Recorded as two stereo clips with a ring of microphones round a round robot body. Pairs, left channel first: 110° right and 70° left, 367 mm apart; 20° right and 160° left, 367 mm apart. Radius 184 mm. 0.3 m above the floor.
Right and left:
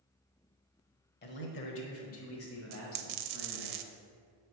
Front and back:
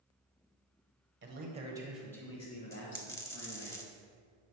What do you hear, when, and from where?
1.2 s a man speaking: 160° right, 1.2 m; by 3.7 s 60° right, 1.8 m
2.7 s a dropped coin: 60° left, 0.5 m